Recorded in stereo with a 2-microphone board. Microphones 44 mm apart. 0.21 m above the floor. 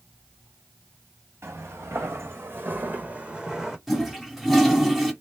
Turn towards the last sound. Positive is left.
turn(degrees=0)  # may be behind; listen again after turning